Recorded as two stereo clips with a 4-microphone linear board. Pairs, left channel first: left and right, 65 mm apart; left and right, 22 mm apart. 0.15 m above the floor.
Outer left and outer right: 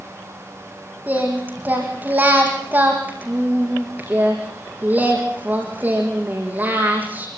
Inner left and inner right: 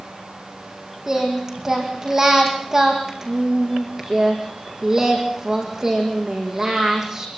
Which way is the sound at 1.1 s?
30° right (ahead or behind).